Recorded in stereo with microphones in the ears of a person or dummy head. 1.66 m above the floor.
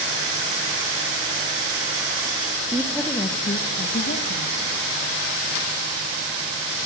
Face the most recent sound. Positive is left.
turn(degrees=60)  # may be behind; listen again after turning